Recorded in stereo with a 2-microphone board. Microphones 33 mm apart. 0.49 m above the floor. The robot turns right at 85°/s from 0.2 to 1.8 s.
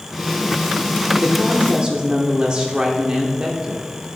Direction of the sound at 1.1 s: 115° right.